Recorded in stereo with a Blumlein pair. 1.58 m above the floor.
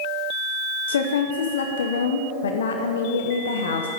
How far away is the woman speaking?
About 0.9 m.